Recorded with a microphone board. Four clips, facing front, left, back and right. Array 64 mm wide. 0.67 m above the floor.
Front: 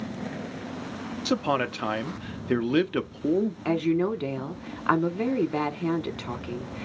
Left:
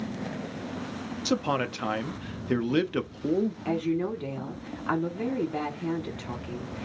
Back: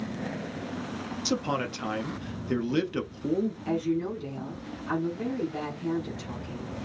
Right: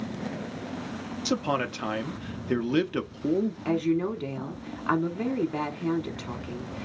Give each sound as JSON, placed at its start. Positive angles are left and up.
{"t": 1.2, "sound": "a man speaking", "azimuth_deg": 10, "distance_m": 0.6}
{"t": 3.6, "sound": "a woman speaking", "azimuth_deg": -10, "distance_m": 1.1}